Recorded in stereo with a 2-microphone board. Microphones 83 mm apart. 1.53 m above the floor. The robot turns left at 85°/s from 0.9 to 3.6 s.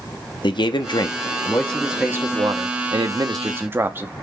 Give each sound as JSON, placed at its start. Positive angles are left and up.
{"t": 0.4, "sound": "a man speaking", "azimuth_deg": 80, "distance_m": 0.6}